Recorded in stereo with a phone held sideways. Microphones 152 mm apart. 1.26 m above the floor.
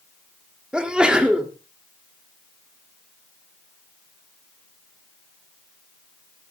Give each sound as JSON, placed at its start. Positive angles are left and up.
{"t": 0.7, "sound": "a sneeze", "side_deg": -5, "distance_m": 3.0}